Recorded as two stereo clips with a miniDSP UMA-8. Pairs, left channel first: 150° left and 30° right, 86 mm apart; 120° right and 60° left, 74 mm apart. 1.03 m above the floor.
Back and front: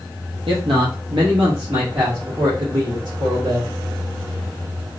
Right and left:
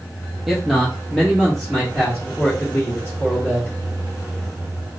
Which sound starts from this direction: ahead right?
A man speaking, at 0.5 s.